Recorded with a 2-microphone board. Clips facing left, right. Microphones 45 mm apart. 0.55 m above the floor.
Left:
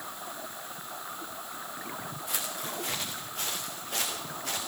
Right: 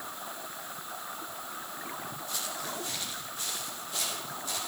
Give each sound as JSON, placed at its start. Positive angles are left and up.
{"t": 2.3, "sound": "footsteps", "side_deg": 85, "distance_m": 4.0}